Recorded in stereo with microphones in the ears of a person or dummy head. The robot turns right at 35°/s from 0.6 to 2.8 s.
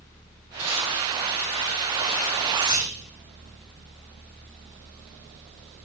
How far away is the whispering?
About 0.9 m.